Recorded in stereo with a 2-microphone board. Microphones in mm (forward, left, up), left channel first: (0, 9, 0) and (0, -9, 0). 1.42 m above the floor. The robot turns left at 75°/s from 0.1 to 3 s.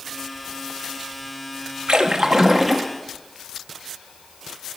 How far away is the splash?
About 0.7 m.